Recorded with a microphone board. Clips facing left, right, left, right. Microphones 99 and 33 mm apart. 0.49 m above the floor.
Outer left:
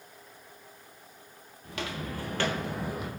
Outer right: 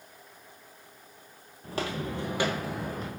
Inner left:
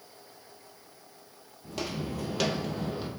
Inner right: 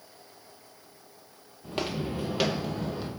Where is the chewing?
No chewing in this recording.